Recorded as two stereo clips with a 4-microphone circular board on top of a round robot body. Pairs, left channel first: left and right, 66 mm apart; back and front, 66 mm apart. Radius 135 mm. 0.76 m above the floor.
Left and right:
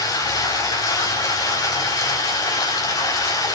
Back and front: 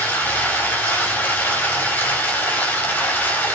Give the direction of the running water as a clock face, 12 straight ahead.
8 o'clock.